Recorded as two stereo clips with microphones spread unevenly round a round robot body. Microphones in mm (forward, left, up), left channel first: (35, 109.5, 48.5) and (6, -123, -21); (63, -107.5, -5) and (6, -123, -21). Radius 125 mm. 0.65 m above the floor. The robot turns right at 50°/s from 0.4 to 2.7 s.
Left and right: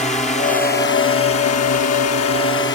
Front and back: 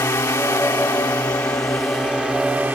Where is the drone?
15° left; by 2.8 s 130° left.